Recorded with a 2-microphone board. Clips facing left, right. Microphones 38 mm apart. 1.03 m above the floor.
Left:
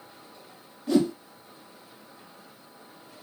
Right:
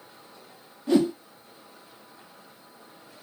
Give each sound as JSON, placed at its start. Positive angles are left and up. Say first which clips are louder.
{"t": 0.9, "sound": "a whoosh", "louder": "right 1 dB", "side_deg": -35, "distance_m": 0.9}